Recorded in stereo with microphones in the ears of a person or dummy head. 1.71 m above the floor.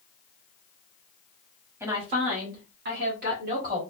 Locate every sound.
1.8 s a woman speaking: 15° right (ahead or behind), 0.8 m; by 3.8 s 55° right (ahead or behind), 1.8 m